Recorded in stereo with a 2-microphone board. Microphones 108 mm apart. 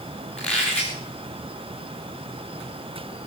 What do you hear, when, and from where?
0.4 s a squeak: 10° left (ahead or behind), 3 m